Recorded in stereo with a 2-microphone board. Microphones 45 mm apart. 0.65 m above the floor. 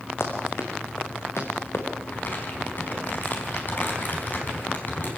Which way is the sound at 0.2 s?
70° left (ahead or behind).